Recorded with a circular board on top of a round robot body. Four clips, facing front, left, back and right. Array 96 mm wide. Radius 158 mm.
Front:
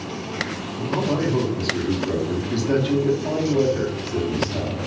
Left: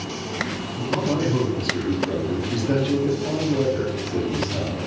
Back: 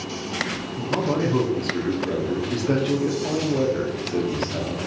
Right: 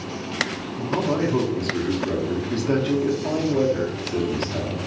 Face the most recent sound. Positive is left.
turn(degrees=-135)